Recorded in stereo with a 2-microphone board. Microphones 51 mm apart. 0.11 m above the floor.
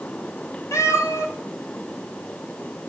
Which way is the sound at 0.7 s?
75° left (ahead or behind).